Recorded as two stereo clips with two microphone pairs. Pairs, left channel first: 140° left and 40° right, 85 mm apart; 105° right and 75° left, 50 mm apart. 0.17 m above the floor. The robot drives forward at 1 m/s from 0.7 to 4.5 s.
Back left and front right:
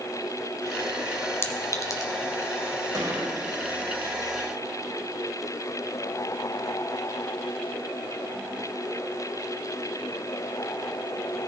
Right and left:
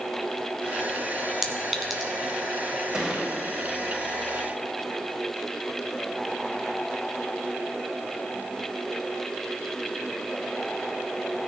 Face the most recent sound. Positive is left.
turn(degrees=0)